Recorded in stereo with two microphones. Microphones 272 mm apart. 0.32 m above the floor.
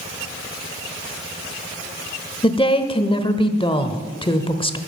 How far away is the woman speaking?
About 0.9 m.